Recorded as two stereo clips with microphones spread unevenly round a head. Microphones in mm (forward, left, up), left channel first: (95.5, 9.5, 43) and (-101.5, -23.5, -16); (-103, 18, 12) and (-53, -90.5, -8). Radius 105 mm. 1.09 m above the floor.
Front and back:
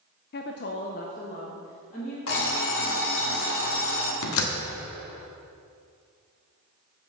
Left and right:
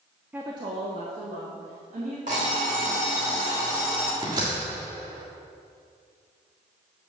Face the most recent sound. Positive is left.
turn(degrees=5)